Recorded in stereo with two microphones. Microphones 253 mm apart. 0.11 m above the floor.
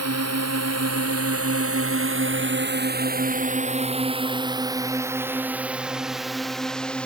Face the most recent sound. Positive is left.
turn(degrees=5)  # may be behind; listen again after turning